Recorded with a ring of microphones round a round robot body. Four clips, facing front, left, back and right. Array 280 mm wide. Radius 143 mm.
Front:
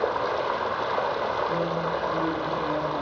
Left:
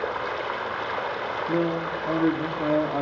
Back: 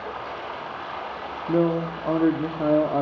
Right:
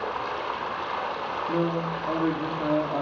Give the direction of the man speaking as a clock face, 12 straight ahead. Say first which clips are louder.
Left 1 dB, back 4 dB; 7 o'clock.